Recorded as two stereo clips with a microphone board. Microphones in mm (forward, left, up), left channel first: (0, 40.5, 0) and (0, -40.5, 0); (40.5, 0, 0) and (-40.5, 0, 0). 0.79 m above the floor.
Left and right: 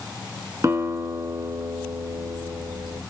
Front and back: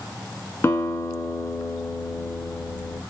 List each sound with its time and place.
0.6 s a guitar: 50° right, 1.1 m